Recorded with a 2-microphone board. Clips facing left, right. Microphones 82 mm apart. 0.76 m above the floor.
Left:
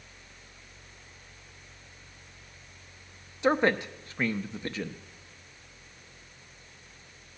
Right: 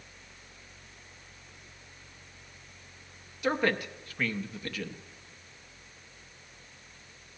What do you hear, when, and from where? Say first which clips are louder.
3.4 s a man speaking: left 4 dB; 25° left (ahead or behind), 0.7 m